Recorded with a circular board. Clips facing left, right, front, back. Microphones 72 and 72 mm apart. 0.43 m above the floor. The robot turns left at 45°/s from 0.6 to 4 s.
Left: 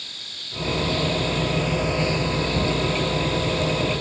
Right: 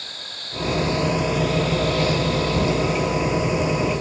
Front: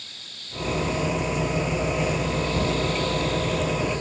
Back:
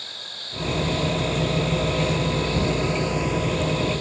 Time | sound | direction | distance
0.0 | an insect | 140° right | ?